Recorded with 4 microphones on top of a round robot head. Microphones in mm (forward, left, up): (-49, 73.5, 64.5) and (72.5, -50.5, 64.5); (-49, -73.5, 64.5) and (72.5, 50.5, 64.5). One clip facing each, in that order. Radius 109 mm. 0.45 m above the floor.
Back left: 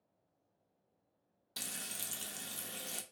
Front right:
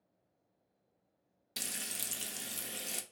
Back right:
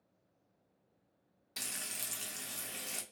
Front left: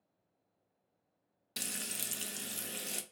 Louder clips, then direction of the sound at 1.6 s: Front right 2 dB, front left 4 dB; 15° left.